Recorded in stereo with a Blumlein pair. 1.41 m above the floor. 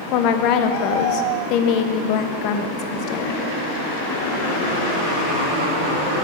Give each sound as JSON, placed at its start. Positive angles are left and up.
{"t": 0.1, "sound": "a woman speaking", "azimuth_deg": 40, "distance_m": 0.7}